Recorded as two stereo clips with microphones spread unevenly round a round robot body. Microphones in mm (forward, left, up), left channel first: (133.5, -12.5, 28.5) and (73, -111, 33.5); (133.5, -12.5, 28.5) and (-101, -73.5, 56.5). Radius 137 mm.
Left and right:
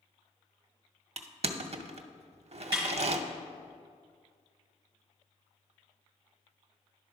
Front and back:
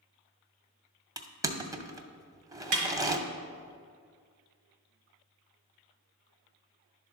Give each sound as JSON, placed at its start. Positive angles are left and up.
{"t": 1.2, "sound": "crushing", "azimuth_deg": -85, "distance_m": 0.6}
{"t": 2.7, "sound": "a snare drum", "azimuth_deg": -165, "distance_m": 1.2}